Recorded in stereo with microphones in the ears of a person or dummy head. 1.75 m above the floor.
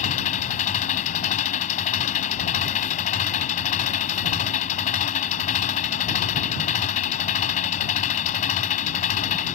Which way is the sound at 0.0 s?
40° left (ahead or behind).